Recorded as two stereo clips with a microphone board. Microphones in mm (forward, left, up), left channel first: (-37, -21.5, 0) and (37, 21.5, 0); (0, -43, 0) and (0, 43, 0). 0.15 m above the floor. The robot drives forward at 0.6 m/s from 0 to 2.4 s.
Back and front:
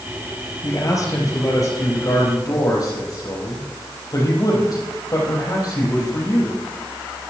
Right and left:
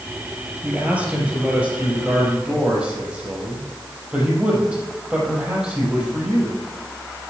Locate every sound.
0.6 s a man speaking: 160° left, 3 m; by 6.6 s 165° left, 4 m